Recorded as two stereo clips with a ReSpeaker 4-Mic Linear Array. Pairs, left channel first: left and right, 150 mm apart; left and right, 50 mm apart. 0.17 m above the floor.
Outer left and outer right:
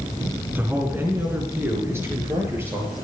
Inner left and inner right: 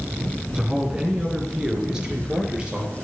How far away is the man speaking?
About 1.8 m.